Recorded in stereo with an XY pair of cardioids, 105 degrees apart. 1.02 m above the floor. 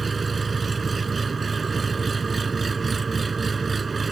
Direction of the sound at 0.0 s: 30° right.